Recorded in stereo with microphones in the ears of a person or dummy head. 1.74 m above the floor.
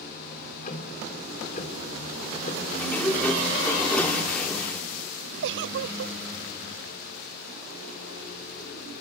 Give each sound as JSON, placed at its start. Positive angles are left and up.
{"t": 0.3, "sound": "ticking", "side_deg": 45, "distance_m": 3.5}
{"t": 2.8, "sound": "a sliding door", "side_deg": 10, "distance_m": 2.5}
{"t": 5.4, "sound": "a giggle", "side_deg": -60, "distance_m": 0.5}